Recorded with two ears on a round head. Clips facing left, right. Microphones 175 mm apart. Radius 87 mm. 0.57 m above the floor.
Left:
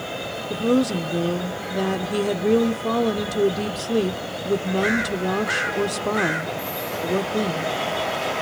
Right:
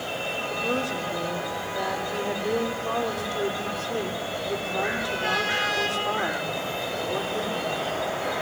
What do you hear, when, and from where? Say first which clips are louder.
0.5 s a woman speaking: left 10 dB; 50° left (ahead or behind), 1.5 m